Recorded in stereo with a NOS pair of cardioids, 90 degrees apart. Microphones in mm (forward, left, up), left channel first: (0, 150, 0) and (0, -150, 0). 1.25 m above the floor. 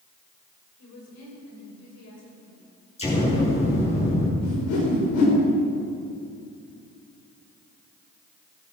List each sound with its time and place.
0.8 s a woman speaking: 65° left, 6.5 m; by 2.7 s 55° left, 6.5 m
3.0 s an explosion: 20° left, 6.5 m
4.4 s a whoosh: 65° left, 5 m